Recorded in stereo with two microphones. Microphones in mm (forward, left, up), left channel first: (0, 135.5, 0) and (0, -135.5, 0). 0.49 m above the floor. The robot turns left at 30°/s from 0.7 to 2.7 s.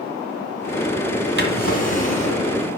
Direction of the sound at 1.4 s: 45° right.